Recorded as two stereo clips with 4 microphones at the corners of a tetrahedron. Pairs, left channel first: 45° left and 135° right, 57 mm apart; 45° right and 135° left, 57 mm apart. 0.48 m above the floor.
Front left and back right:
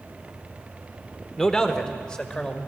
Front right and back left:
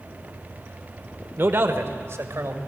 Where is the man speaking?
120° left, 1.5 m; by 2.6 s 115° left, 2.5 m.